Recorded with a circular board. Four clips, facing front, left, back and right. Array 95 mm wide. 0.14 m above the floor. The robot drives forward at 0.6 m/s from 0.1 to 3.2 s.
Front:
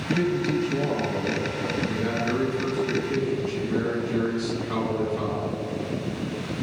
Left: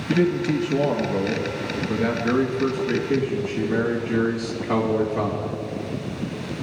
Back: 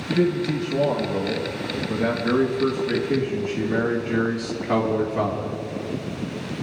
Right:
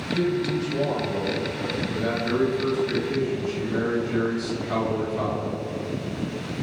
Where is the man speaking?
90° left, 2 m; by 5.6 s 140° left, 3 m.